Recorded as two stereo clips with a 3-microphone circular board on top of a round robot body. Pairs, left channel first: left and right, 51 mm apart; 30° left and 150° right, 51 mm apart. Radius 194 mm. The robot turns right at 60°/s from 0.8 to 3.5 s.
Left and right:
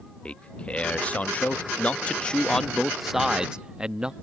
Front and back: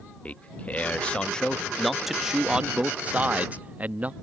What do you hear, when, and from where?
0.2 s a man speaking: 50° left; by 4.1 s 145° right